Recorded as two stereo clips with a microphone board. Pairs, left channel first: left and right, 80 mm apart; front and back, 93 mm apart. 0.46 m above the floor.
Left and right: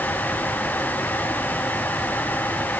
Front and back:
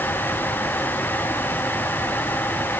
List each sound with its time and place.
Only background noise.